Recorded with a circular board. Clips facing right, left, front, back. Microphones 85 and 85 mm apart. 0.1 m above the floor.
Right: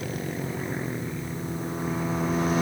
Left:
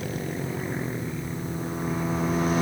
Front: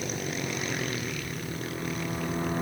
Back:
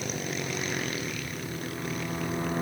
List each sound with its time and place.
Only background noise.